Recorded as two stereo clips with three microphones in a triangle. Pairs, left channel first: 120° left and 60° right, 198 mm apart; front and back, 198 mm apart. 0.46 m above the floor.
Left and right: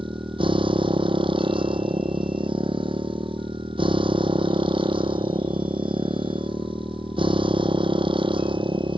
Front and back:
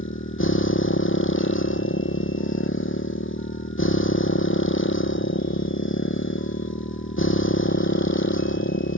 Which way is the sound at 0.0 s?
5° left.